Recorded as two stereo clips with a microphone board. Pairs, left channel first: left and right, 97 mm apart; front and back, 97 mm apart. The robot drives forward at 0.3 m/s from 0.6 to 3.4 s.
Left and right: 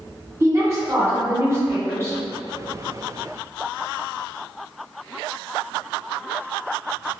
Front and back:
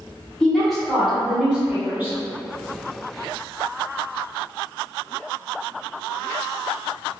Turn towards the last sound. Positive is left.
turn(degrees=-145)